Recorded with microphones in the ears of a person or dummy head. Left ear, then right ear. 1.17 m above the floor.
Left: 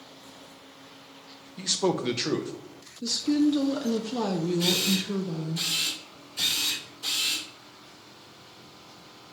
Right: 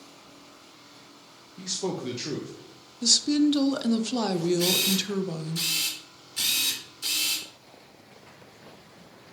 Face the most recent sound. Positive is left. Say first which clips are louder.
# left 2 dB
turn(degrees=-45)  # may be behind; listen again after turning